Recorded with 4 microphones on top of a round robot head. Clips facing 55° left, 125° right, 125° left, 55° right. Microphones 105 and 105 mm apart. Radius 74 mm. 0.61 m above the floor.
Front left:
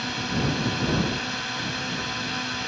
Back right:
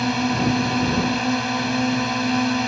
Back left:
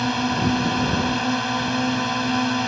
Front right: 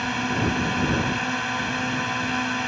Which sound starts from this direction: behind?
A drone, at 0.0 s.